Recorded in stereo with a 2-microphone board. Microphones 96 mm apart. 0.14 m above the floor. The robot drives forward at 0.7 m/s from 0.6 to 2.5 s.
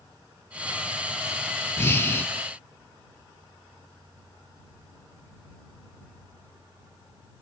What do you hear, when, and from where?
1.8 s breathing: 25° left (ahead or behind), 1.0 m; by 2.3 s 20° left (ahead or behind), 1.1 m